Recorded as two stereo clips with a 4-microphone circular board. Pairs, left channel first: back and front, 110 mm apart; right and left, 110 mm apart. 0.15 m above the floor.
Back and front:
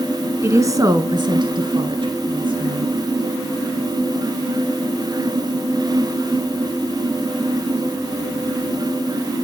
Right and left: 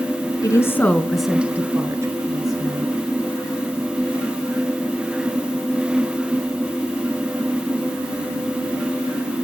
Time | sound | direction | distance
0.4 | a woman speaking | 55° right | 1.6 m